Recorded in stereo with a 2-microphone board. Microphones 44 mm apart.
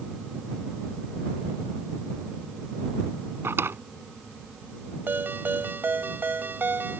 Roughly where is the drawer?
Right.